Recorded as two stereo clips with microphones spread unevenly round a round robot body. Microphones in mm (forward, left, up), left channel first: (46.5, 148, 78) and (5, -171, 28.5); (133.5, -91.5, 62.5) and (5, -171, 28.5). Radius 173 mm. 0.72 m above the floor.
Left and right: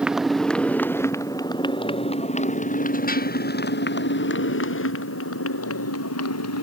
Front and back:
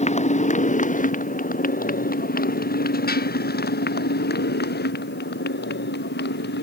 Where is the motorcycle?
10° right; by 6.6 s 40° left.